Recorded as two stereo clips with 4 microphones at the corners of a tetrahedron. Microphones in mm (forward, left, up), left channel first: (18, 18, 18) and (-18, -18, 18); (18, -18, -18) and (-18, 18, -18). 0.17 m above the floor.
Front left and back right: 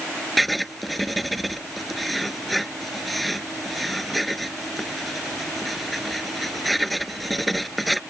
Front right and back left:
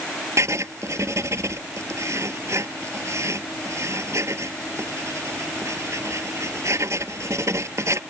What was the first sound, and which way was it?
Writing, 135° left.